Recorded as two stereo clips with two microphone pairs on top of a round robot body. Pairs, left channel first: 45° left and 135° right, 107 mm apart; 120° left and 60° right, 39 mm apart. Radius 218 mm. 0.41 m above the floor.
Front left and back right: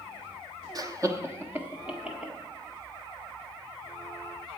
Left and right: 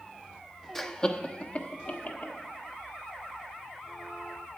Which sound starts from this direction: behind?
Laughter, at 0.8 s.